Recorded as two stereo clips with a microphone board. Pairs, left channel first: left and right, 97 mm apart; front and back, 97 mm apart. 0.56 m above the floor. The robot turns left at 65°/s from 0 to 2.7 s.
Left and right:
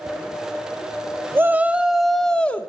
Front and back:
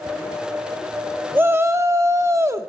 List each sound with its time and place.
1.4 s a shout: 130° right, 0.8 m; by 2.7 s 140° left, 0.8 m